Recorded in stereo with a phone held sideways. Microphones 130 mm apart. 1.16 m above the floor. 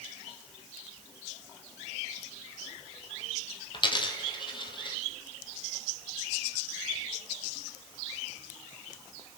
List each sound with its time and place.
3.7 s a dropped coin: 35° left (ahead or behind), 1.4 m